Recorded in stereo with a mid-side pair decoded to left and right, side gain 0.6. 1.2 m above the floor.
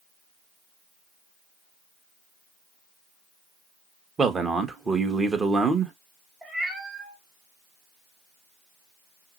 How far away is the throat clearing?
No throat clearing in this recording.